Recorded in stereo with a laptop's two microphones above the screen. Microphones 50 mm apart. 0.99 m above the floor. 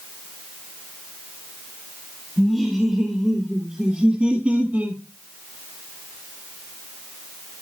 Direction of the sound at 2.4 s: Centre (ahead or behind).